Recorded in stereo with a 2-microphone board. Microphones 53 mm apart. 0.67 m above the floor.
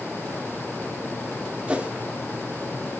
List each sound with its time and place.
1.7 s a whoosh: 20° right (ahead or behind), 1.7 m